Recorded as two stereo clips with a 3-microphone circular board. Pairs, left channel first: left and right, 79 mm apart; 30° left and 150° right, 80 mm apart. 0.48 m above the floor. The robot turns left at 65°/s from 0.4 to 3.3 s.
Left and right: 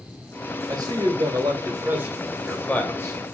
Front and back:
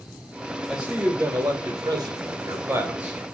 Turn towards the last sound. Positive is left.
turn(degrees=120)